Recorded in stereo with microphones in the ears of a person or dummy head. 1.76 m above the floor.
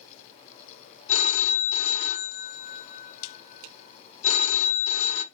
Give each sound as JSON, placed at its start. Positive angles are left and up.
{"t": 1.1, "sound": "a phone ringing", "side_deg": 35, "distance_m": 1.3}